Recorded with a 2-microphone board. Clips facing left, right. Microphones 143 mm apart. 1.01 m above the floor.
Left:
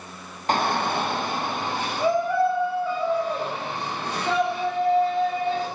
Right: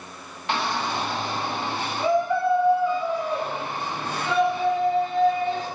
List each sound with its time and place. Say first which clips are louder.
0.5 s a shout: left 3 dB; 45° left (ahead or behind), 0.6 m; by 5.7 s 35° left (ahead or behind), 5.5 m